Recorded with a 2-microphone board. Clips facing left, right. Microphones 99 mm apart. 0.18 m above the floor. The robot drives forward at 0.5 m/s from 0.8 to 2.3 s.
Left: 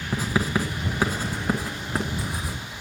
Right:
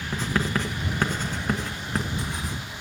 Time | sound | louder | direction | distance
0.1 | writing | left 2 dB | 10° left (ahead or behind) | 1.8 m